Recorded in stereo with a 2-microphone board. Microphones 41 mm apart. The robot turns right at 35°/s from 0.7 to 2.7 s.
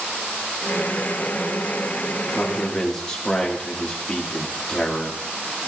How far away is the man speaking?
About 2.5 m.